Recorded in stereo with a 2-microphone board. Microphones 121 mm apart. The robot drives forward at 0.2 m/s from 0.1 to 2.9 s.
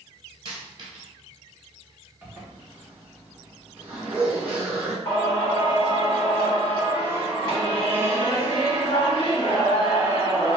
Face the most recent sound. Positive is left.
turn(degrees=40)  # may be behind; listen again after turning